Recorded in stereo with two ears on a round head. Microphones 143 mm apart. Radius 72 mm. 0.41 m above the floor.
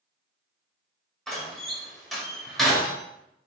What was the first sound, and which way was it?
A door slam, centre (ahead or behind).